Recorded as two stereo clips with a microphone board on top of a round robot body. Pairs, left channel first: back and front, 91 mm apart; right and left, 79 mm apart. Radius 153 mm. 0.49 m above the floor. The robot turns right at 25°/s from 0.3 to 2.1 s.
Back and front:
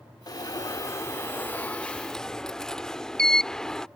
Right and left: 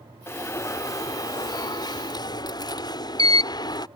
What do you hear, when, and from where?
0.3 s an alarm: 140° right; by 3.9 s 95° right